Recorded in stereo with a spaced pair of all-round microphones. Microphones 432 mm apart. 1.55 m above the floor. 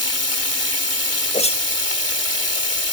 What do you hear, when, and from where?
0.0 s running water: 35° left (ahead or behind)
1.3 s a whoosh: 15° left (ahead or behind)